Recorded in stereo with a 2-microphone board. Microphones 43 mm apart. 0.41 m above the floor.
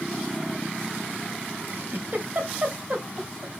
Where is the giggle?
50° right (ahead or behind), 2.5 m.